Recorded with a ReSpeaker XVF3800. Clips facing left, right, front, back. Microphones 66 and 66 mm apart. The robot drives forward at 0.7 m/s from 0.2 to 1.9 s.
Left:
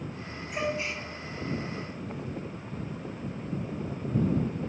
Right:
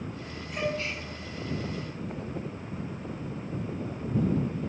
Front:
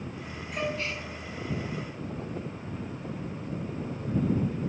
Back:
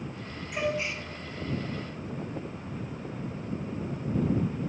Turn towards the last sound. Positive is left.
turn(degrees=155)